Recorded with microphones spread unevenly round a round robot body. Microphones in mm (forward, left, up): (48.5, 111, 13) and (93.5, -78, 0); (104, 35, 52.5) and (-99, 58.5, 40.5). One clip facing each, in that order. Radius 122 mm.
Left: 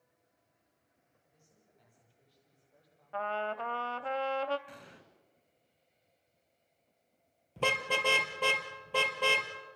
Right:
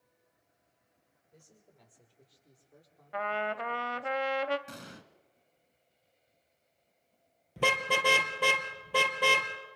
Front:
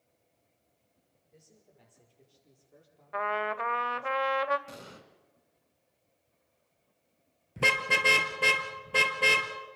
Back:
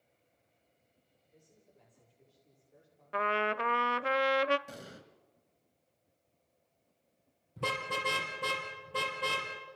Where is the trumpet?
145° right, 0.5 m.